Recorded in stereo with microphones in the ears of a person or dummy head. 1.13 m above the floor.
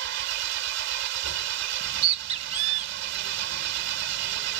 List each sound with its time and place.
0.0 s an engine running: 70° right (ahead or behind)
1.8 s a bird: 40° right (ahead or behind)